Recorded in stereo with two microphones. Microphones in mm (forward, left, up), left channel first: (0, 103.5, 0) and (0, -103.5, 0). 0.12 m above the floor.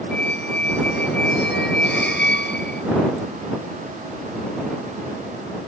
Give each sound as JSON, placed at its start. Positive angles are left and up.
{"t": 0.1, "sound": "a squeak", "side_deg": 60}